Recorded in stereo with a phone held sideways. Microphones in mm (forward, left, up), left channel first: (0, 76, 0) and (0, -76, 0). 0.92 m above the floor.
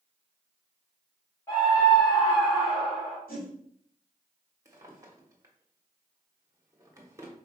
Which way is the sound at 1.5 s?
20° left (ahead or behind).